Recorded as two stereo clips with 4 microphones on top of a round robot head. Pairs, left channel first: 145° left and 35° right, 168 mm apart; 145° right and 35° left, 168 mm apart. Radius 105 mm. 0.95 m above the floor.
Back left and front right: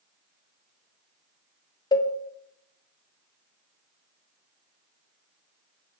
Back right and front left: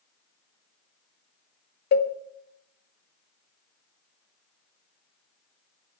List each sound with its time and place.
1.9 s a cowbell: 150° right, 1.0 m